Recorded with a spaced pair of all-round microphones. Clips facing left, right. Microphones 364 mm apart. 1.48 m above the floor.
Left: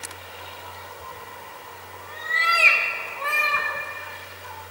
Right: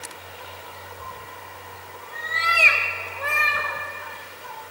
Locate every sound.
1.0 s a cat meowing: 15° right (ahead or behind), 1.3 m; by 3.7 s 5° left (ahead or behind), 3 m